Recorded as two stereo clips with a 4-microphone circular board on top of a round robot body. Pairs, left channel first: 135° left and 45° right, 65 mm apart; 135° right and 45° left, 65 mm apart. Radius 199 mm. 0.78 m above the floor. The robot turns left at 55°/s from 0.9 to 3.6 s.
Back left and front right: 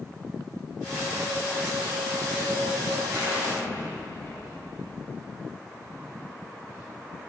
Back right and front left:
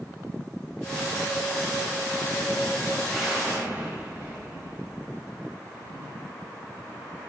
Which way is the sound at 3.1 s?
135° left.